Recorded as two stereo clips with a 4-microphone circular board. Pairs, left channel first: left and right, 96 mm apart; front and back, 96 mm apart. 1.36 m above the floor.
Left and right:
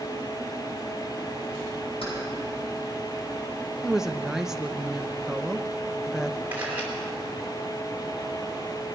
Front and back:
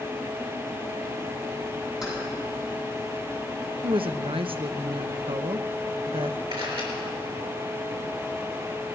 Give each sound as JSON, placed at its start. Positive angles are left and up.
{"t": 2.0, "sound": "keys jangling", "azimuth_deg": 95, "distance_m": 7.0}
{"t": 3.8, "sound": "a woman speaking", "azimuth_deg": -175, "distance_m": 0.6}
{"t": 6.5, "sound": "a camera shutter", "azimuth_deg": -160, "distance_m": 4.0}